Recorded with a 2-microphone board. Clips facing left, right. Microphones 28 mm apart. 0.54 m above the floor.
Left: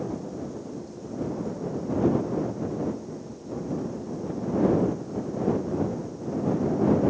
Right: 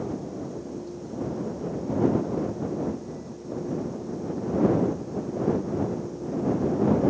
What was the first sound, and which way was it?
Only background noise.